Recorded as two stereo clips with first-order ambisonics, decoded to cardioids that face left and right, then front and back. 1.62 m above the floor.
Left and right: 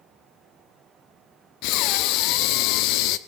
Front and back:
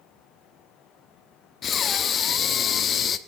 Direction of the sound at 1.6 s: 65° left.